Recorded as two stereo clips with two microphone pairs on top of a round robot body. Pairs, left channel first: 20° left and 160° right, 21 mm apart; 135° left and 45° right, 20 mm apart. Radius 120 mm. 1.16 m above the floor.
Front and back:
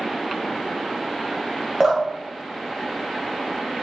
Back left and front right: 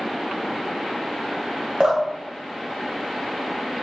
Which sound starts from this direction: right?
Dripping, at 1.8 s.